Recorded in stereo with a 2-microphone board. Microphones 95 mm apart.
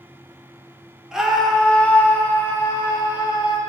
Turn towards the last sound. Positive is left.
turn(degrees=45)  # may be behind; listen again after turning